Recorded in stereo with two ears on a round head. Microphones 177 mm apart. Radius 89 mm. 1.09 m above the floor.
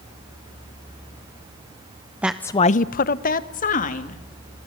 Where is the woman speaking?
5° right (ahead or behind), 0.7 m; by 4.2 s 40° left (ahead or behind), 2.5 m.